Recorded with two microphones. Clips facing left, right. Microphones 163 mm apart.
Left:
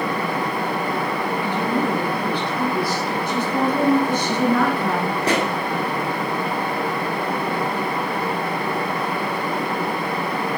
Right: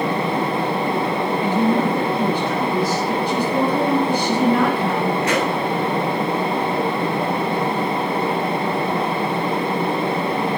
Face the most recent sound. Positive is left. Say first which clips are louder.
# right 1 dB
turn(degrees=30)  # may be behind; listen again after turning